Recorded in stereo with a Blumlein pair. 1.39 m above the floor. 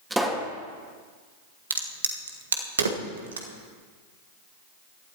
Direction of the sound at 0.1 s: 10° right.